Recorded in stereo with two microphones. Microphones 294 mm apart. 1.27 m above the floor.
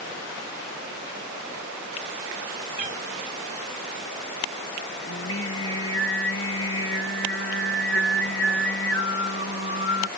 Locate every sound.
2.8 s a cat meowing: 75° left (ahead or behind)
5.1 s singing: 45° left (ahead or behind)